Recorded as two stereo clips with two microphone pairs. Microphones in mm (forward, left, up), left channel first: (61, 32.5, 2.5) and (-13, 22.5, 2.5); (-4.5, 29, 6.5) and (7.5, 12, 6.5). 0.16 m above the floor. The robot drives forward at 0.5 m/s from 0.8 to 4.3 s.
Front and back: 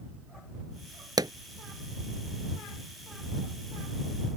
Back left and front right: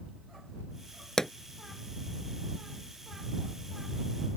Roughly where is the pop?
Behind.